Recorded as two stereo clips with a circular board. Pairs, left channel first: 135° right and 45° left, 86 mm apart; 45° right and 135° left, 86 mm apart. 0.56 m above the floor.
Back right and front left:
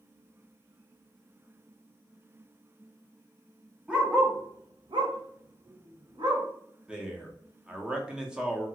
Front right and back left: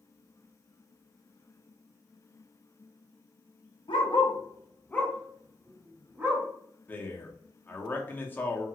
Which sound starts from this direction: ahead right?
A dog barking, at 3.9 s.